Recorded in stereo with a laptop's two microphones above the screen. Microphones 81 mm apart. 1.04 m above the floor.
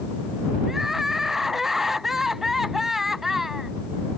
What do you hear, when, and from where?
0.7 s crying: 5° right (ahead or behind)